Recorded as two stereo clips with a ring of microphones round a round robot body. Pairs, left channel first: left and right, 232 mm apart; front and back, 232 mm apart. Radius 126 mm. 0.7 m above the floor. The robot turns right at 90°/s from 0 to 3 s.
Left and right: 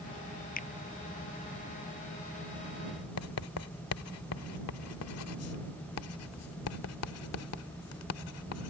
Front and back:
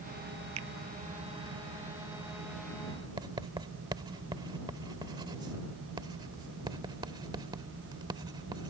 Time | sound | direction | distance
0.6 | a finger snap | 145° left | ?
3.2 | writing | 105° left | ?